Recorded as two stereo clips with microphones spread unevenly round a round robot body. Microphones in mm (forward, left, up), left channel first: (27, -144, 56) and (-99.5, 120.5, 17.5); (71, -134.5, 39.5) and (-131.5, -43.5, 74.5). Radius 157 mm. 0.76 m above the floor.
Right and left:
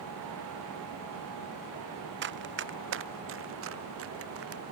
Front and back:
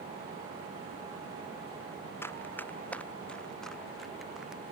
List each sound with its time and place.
2.2 s running footsteps: 60° left; by 4.6 s 70° left